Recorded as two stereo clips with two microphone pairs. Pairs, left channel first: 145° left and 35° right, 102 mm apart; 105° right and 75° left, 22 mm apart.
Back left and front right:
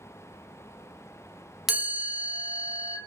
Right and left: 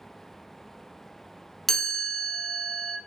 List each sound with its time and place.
1.7 s a chime: 125° right, 0.7 m